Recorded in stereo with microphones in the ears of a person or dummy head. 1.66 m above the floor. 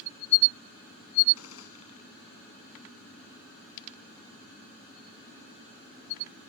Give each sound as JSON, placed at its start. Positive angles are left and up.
{"t": 1.4, "sound": "a gunshot", "side_deg": 90}